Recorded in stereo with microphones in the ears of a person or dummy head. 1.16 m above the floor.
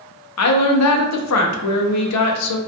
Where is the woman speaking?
80° left, 0.5 m.